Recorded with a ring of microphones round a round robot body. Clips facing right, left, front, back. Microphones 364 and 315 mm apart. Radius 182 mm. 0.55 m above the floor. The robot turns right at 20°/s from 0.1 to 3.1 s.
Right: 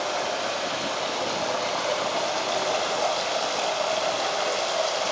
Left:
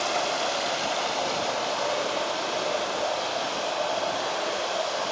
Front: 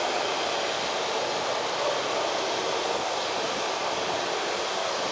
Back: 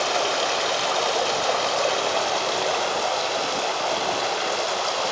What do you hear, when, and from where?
0.0 s running water: 150° left, 0.8 m; by 5.1 s 150° right, 0.8 m